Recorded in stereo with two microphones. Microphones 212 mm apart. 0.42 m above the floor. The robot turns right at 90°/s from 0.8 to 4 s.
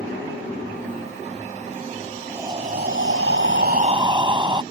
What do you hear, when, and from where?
2.3 s breathing: 175° right; by 4.6 s 25° right